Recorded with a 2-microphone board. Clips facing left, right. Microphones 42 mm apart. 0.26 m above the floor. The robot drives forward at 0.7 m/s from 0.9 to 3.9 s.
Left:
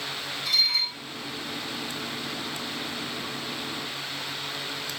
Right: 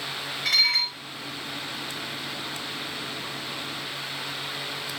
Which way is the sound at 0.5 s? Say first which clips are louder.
Right 3 dB; 70° right (ahead or behind).